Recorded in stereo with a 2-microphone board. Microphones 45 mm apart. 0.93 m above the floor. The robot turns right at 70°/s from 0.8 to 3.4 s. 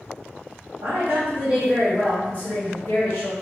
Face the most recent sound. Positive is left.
turn(degrees=90)